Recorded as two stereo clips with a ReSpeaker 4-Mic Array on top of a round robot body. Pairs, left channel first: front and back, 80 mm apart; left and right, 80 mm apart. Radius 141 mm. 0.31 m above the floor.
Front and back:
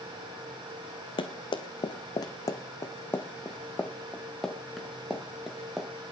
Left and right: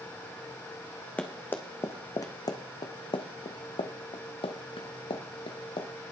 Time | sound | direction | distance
1.2 | running footsteps | 15° left | 2.0 m